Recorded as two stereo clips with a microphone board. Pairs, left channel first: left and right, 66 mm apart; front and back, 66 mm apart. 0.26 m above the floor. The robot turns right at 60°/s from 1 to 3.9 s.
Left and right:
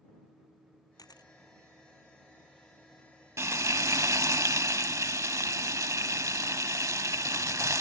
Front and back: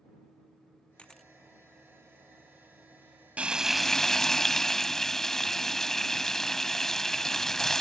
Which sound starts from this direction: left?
A camera shutter, at 1.0 s.